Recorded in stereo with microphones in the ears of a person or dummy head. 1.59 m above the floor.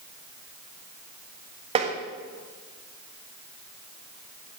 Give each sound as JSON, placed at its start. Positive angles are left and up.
{"t": 1.8, "sound": "tapping", "side_deg": -35, "distance_m": 1.6}